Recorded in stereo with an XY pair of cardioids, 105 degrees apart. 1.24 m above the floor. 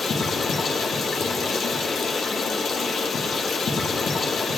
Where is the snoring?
I don't hear snoring.